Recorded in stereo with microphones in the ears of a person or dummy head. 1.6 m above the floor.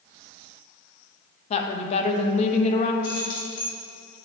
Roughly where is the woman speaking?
Left.